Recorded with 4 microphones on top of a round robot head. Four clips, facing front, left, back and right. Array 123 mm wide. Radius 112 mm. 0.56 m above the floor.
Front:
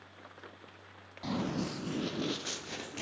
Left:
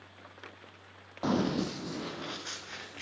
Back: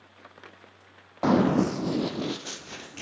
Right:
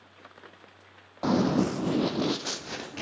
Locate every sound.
1.2 s running footsteps: 170° right, 1.2 m; by 3.0 s 70° right, 1.8 m